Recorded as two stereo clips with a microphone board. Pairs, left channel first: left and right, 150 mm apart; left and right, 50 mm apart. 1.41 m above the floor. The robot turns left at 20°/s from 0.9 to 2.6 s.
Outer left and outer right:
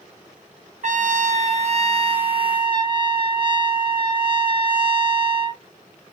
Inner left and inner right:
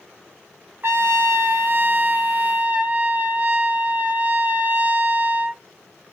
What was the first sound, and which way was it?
A trumpet, 110° right.